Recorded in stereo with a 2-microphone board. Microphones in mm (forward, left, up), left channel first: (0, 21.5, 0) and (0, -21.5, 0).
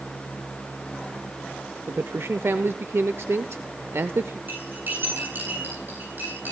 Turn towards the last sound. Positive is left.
turn(degrees=-50)  # may be behind; listen again after turning